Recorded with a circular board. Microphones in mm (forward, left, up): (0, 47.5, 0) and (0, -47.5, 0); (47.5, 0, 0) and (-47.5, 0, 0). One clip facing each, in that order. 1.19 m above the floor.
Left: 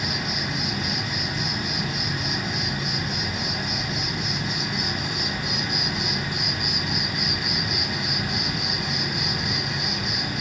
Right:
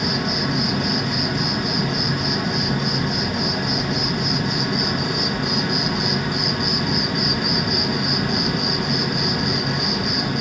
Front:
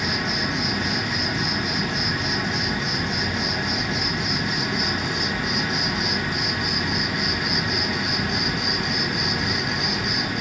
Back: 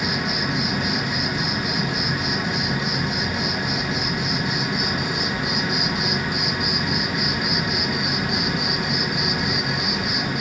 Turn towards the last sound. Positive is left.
turn(degrees=-105)